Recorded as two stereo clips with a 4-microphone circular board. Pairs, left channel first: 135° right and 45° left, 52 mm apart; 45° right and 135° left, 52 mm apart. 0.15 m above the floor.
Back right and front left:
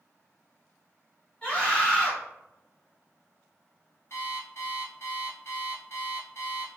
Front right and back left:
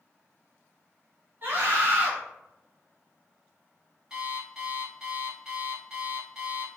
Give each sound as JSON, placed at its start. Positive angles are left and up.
{"t": 1.4, "sound": "a scream", "azimuth_deg": 165, "distance_m": 1.5}
{"t": 4.1, "sound": "an alarm clock", "azimuth_deg": -150, "distance_m": 1.5}